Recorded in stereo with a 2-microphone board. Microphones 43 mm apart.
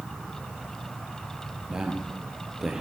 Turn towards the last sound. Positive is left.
turn(degrees=-10)  # may be behind; listen again after turning